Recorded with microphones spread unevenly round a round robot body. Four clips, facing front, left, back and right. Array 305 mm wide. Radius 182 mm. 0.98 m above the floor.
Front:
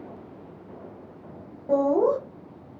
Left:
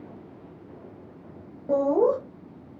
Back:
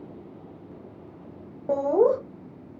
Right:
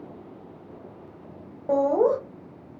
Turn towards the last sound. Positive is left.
turn(degrees=175)